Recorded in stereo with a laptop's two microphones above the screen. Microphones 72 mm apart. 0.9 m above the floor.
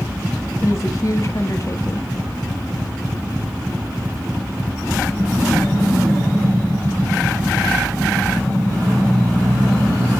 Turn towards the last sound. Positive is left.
turn(degrees=45)  # may be behind; listen again after turning